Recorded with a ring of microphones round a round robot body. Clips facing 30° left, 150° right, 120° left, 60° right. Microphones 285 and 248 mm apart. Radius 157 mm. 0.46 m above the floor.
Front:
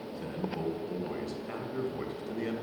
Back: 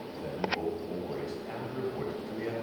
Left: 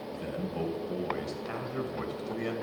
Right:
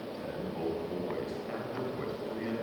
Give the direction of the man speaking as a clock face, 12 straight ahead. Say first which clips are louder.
Back 1 dB, left 4 dB; 9 o'clock.